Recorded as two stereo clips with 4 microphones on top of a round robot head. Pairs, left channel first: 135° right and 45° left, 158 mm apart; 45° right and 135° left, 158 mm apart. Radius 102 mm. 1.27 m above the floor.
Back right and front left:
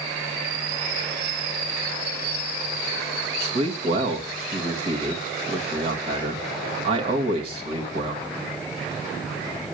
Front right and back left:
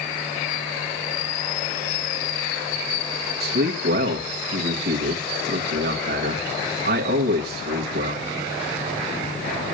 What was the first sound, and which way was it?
A man speaking, 100° left.